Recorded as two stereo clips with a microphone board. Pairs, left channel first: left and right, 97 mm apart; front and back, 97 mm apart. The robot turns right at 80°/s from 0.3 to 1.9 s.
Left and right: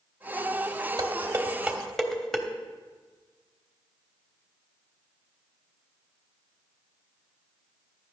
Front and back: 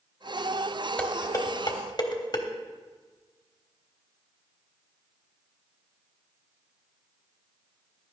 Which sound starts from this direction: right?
Dishes clattering, at 1.0 s.